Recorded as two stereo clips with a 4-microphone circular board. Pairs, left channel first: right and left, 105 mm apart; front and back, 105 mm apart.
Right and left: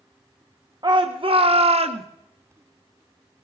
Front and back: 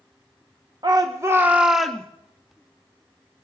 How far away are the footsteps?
No footsteps in this recording.